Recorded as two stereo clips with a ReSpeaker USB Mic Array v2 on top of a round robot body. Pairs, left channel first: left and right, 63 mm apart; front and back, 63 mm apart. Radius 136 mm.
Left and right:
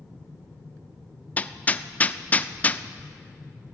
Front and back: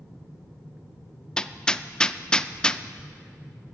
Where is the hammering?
60° left, 0.6 m.